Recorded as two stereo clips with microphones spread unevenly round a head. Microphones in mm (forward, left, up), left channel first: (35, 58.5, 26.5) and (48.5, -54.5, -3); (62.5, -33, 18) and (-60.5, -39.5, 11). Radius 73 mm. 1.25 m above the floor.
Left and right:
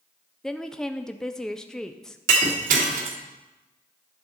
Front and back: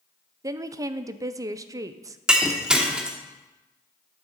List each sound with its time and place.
0.4 s a woman speaking: 155° right, 0.5 m
2.3 s breaking glass: 95° right, 1.3 m